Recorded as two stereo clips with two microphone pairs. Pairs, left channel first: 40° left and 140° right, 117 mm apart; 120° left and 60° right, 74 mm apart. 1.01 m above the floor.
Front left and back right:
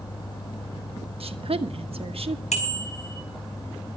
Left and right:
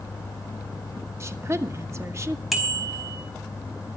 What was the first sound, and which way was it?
A woman speaking, 105° right.